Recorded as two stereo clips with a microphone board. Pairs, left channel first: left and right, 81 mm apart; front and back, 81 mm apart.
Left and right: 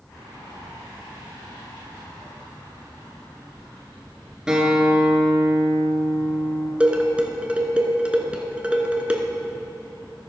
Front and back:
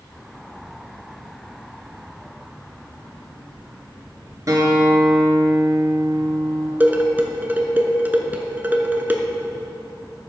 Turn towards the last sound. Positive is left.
turn(degrees=-145)